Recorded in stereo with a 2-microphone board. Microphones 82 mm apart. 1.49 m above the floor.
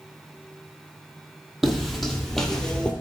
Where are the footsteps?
Centre (ahead or behind), 2 m; by 2.9 s 10° left (ahead or behind), 1.7 m.